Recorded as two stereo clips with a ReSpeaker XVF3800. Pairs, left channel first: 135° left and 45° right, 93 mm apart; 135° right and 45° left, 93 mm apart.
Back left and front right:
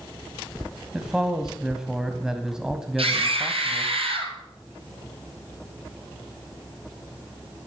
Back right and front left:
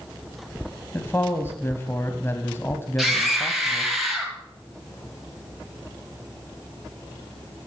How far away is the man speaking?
About 1.5 m.